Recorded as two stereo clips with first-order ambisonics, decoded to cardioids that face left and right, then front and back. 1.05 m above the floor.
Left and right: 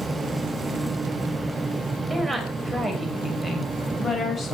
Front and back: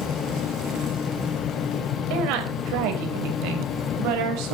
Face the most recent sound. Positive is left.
turn(degrees=160)